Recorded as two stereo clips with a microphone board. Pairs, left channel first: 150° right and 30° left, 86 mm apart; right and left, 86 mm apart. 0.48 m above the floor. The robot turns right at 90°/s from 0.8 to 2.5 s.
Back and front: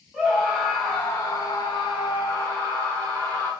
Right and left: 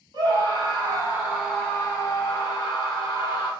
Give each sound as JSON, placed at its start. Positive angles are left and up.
{"t": 0.1, "sound": "a scream", "azimuth_deg": 125, "distance_m": 2.5}